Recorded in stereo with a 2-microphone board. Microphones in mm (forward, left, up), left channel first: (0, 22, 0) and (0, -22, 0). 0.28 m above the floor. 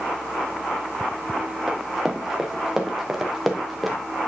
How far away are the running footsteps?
About 4.5 m.